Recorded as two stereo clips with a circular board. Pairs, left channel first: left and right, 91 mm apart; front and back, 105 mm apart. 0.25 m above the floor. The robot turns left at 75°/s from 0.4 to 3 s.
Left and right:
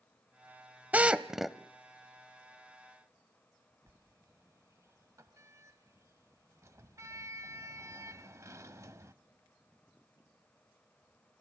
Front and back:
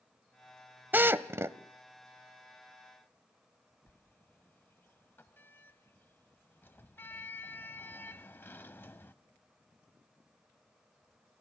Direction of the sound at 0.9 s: 135° right.